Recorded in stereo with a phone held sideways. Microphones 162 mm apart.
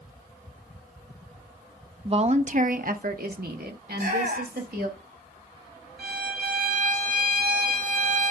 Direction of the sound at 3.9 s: 70° right (ahead or behind).